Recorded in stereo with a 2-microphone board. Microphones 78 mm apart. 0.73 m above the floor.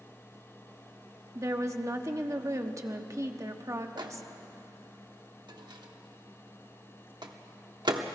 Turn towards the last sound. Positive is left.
turn(degrees=-65)  # may be behind; listen again after turning